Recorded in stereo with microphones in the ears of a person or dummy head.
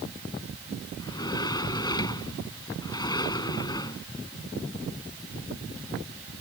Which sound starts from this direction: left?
A sliding door, at 1.0 s.